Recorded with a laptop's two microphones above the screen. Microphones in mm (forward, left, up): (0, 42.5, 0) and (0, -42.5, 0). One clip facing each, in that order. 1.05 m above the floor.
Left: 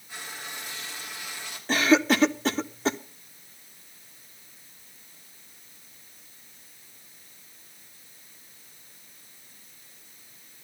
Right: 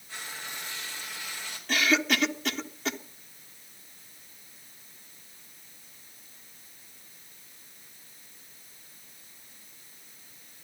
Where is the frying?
15° left (ahead or behind), 2.5 m.